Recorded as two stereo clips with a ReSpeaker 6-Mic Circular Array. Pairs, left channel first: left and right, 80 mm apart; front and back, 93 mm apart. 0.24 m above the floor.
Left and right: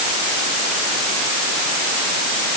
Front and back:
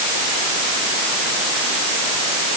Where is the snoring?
No snoring in this recording.